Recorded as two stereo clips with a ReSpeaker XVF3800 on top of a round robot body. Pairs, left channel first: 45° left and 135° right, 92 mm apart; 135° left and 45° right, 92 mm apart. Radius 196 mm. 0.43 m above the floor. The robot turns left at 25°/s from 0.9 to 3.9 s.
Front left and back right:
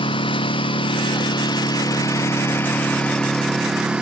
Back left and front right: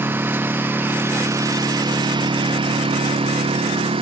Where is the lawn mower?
20° left; by 4.0 s 55° right.